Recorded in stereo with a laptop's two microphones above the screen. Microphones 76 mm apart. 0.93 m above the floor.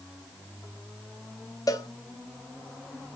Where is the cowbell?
50° left (ahead or behind), 0.6 m.